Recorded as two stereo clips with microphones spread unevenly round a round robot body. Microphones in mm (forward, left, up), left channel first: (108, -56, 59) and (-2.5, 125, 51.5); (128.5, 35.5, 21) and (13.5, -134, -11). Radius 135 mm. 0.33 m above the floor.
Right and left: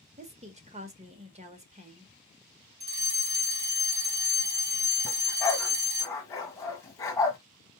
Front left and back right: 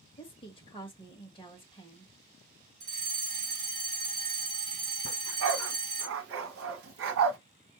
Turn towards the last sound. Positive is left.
turn(degrees=-135)